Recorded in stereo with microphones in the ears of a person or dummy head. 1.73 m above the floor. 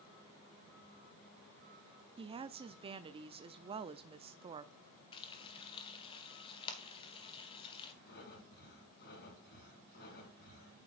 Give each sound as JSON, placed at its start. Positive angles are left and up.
{"t": 2.2, "sound": "a woman speaking", "side_deg": -25, "distance_m": 0.6}
{"t": 5.1, "sound": "frying", "side_deg": 30, "distance_m": 1.5}
{"t": 8.1, "sound": "breathing", "side_deg": 60, "distance_m": 4.5}